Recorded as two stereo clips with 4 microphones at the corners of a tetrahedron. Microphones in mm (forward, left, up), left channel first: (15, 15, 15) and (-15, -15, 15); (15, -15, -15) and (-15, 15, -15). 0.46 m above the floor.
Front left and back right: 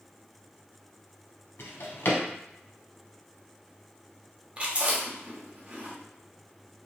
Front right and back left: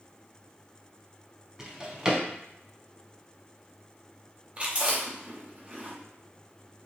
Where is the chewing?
Straight behind, 0.8 m.